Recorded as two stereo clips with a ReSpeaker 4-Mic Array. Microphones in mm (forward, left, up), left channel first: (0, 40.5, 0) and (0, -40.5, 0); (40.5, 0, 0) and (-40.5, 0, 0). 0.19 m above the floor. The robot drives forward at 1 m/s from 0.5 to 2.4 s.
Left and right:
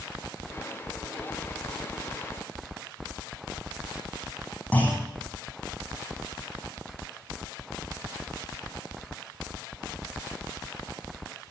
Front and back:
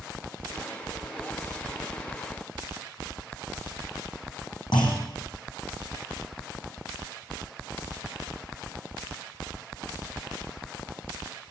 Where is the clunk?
20° left, 5.5 m.